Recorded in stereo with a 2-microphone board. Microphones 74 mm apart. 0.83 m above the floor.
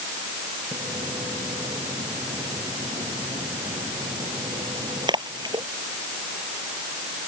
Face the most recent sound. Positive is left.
turn(degrees=-85)